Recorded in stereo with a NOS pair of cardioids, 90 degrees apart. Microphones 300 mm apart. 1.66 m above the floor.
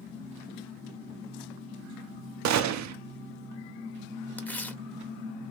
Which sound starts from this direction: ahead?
Tearing paper, at 4.4 s.